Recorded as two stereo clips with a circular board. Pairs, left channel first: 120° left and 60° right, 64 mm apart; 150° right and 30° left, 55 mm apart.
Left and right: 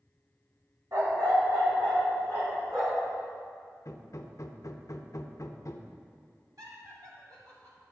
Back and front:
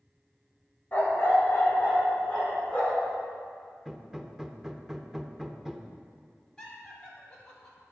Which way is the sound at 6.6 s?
75° right.